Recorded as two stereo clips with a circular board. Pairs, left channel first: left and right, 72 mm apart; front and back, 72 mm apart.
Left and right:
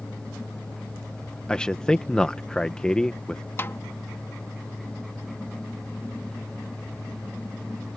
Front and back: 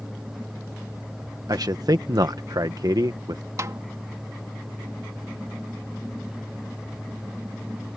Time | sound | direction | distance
1.5 | a man speaking | 165° left | ?
3.6 | a snare drum | 145° left | ?